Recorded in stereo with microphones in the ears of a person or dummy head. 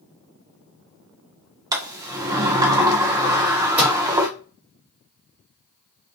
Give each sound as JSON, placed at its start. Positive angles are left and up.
{"t": 1.7, "sound": "a sliding door", "side_deg": -15, "distance_m": 0.5}
{"t": 3.8, "sound": "a microwave", "side_deg": -10, "distance_m": 1.1}